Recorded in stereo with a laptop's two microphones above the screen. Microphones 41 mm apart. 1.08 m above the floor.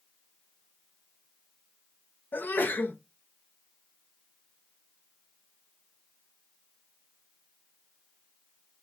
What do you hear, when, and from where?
2.3 s a sneeze: 55° left (ahead or behind), 0.7 m